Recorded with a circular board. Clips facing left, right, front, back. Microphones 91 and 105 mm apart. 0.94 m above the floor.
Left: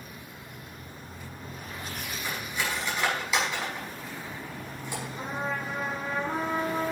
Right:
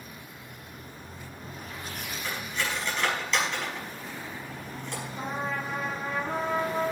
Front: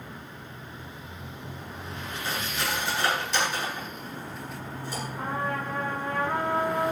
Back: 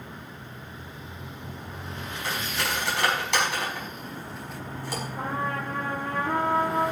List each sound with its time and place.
2.2 s cutlery clinking: 170° left, 5.5 m
5.2 s a trumpet: straight behind, 7.5 m